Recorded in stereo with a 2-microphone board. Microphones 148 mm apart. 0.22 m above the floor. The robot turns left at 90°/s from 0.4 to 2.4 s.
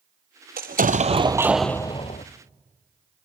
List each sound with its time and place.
0.6 s an explosion: 85° right, 0.9 m; by 2.2 s 120° left, 0.9 m